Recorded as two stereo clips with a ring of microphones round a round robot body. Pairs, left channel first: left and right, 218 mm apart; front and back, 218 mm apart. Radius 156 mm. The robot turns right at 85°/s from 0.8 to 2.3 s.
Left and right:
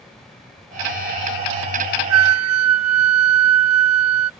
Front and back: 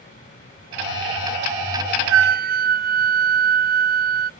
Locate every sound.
2.1 s a flute: 135° right; by 4.3 s 115° right